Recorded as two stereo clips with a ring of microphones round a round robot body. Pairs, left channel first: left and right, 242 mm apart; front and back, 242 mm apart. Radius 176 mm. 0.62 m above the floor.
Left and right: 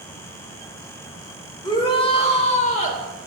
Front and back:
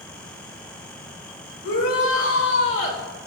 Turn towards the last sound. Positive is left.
turn(degrees=35)